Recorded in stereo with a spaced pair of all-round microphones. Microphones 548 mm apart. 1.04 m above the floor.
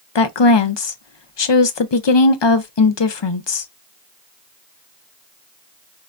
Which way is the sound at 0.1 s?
55° left (ahead or behind).